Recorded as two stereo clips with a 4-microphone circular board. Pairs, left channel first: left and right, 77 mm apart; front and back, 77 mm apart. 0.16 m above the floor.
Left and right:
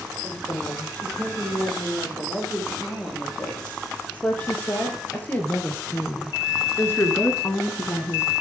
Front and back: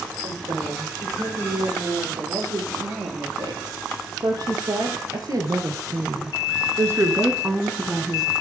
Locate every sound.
0.2 s a woman speaking: 165° left, 6 m; by 8.3 s 85° left, 1.2 m